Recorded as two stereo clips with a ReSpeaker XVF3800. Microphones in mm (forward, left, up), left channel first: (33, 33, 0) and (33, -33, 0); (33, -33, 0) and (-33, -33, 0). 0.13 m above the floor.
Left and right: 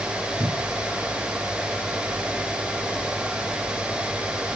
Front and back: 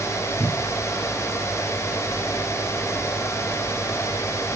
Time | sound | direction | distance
0.4 | a cupboard door | 95° right | ?